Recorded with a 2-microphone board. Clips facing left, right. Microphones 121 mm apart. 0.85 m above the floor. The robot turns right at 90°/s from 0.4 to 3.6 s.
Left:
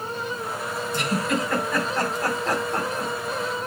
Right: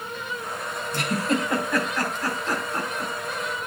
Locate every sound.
0.9 s a giggle: 70° right (ahead or behind), 4.5 m; by 3.1 s 50° left (ahead or behind), 4.5 m